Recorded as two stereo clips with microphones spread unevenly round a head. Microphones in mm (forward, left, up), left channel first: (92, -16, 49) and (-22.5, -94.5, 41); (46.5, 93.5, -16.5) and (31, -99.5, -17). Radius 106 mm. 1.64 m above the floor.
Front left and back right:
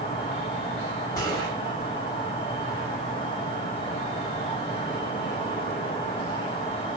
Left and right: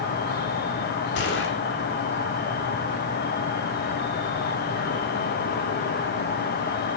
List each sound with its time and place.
0.0 s an insect: 90° left, 1.0 m
1.1 s a gunshot: 105° left, 1.9 m